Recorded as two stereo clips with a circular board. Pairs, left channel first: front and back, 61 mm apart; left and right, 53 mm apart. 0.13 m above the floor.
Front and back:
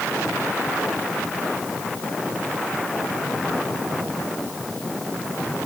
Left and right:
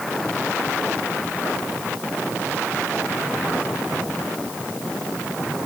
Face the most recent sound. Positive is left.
No sound to turn to.